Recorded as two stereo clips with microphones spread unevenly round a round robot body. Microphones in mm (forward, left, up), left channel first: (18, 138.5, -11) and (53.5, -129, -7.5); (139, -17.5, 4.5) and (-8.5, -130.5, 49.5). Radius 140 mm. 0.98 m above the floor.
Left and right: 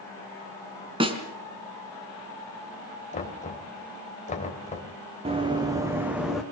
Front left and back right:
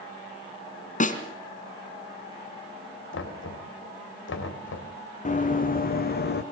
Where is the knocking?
35° left, 3 m.